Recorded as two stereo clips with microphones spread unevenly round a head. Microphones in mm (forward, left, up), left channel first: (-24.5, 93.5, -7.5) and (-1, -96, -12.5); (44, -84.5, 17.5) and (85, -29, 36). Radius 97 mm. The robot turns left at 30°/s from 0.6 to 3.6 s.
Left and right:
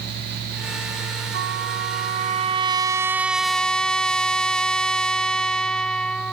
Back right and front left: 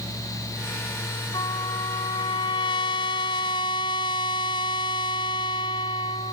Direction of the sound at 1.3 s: 110° right.